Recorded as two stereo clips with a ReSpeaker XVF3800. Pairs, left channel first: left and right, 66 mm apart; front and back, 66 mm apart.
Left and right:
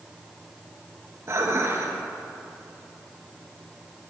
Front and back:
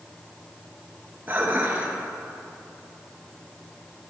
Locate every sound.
1.3 s dishes clattering: 125° right, 1.7 m